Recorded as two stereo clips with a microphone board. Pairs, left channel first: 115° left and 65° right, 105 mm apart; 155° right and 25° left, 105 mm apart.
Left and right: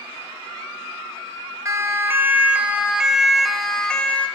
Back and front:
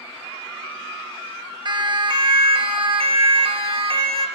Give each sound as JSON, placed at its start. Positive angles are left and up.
{"t": 1.6, "sound": "a siren", "azimuth_deg": -10, "distance_m": 2.0}